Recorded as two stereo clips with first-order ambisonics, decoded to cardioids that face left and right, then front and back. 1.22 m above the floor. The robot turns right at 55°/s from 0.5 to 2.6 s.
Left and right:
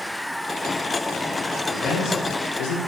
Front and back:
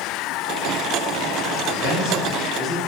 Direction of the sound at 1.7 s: 10° left.